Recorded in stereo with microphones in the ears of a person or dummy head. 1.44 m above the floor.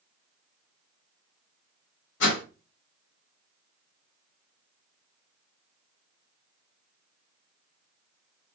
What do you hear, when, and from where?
2.2 s a whoosh: 65° left (ahead or behind), 1.4 m